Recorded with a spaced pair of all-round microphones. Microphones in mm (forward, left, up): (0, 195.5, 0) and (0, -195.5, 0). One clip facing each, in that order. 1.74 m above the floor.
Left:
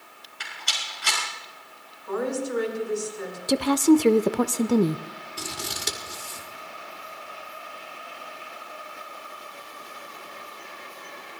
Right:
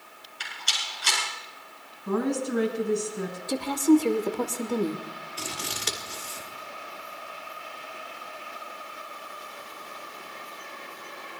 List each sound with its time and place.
0.4 s a rattle: 70° left (ahead or behind), 7.5 m
2.1 s a woman speaking: 70° right (ahead or behind), 3.5 m
3.5 s a woman speaking: 85° left, 0.6 m
5.4 s scissors: 55° left (ahead or behind), 2 m